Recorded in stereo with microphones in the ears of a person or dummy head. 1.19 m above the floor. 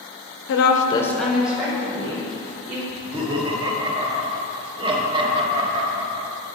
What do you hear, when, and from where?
0.5 s a woman speaking: 70° left (ahead or behind), 0.7 m; by 2.8 s 25° right (ahead or behind), 3 m
2.9 s laughter: 30° right (ahead or behind), 1.1 m